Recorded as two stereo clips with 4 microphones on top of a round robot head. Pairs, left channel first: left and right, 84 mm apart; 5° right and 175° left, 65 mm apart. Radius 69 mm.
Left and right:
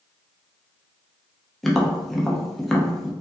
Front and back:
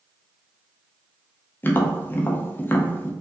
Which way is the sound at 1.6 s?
5° left.